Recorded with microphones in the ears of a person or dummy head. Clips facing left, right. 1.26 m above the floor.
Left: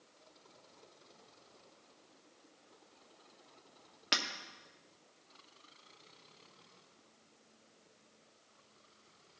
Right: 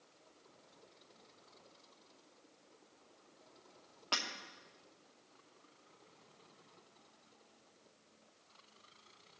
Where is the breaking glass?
25° left (ahead or behind), 1.3 m.